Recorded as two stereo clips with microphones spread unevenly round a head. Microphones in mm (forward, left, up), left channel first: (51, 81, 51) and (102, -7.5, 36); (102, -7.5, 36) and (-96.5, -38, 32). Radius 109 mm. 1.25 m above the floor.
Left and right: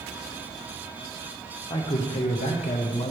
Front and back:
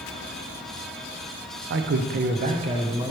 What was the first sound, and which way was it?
A man speaking, 175° left.